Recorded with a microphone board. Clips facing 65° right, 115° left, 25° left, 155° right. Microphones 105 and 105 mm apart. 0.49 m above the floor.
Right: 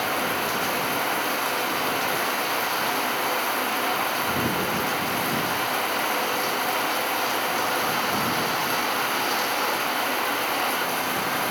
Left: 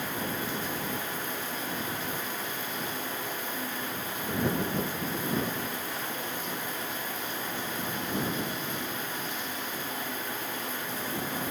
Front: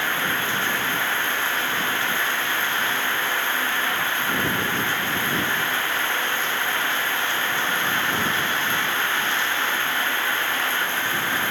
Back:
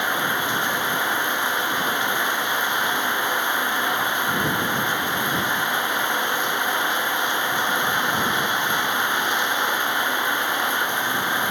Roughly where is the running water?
Right.